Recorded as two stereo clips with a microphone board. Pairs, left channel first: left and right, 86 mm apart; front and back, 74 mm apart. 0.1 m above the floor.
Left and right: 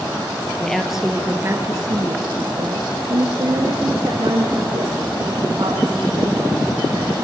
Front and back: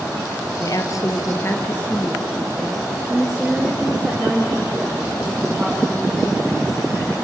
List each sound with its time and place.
0.6 s a woman speaking: 10° left, 2 m; by 7.2 s 115° right, 9.5 m